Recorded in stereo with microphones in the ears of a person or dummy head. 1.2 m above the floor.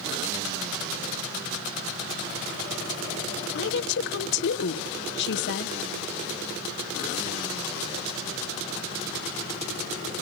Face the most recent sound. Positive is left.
turn(degrees=60)  # may be behind; listen again after turning